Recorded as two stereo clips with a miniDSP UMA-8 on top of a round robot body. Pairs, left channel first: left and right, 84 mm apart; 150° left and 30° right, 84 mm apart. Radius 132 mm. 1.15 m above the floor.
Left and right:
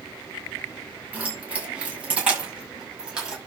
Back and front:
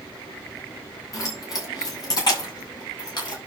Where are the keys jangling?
160° right, 6 m; by 3.4 s 170° right, 5.5 m.